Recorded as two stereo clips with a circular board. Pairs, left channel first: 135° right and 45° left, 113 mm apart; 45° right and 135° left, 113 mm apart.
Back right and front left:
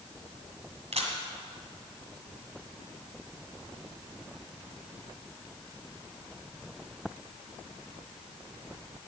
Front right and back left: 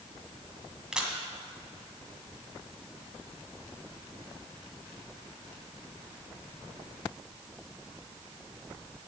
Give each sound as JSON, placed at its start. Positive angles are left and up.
{"t": 0.9, "sound": "a camera shutter", "azimuth_deg": 50, "distance_m": 1.8}